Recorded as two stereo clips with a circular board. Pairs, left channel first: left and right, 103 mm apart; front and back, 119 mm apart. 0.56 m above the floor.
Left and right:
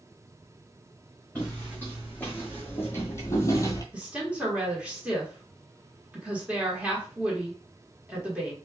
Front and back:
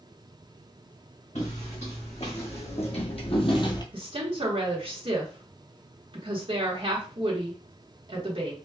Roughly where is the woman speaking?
Behind.